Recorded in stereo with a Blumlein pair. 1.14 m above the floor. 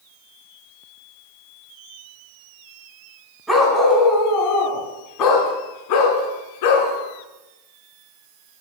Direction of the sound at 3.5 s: Straight ahead.